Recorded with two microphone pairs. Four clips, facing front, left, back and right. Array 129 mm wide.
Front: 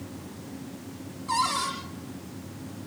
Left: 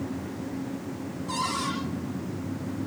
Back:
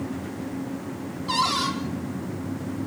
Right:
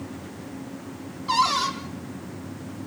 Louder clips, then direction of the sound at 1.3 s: Right 8 dB, back 2 dB; 120° right.